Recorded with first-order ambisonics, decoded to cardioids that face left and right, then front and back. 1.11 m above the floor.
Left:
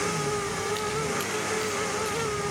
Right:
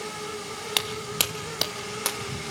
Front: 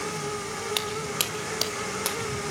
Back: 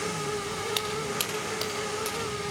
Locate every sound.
0.8 s footsteps: 80° right, 1.6 m; by 2.4 s 60° right, 3 m